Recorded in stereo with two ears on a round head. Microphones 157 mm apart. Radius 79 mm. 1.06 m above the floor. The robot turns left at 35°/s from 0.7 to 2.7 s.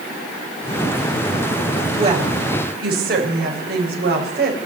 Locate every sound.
2.0 s a woman speaking: 35° right (ahead or behind), 5.5 m; by 4.6 s 60° right (ahead or behind), 5.5 m